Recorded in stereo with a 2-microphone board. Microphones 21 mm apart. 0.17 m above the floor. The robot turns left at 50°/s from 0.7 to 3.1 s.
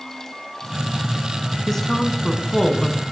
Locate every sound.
1.7 s a woman speaking: 20° left (ahead or behind), 1.4 m